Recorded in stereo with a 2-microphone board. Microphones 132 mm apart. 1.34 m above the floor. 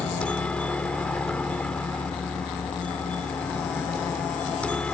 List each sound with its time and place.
0.0 s a helicopter: 10° left (ahead or behind)